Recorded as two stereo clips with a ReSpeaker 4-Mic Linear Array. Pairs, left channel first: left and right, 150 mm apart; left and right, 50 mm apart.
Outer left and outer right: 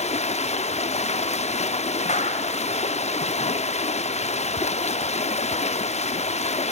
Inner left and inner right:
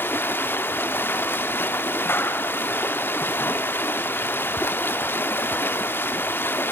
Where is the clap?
50° left (ahead or behind), 2 m.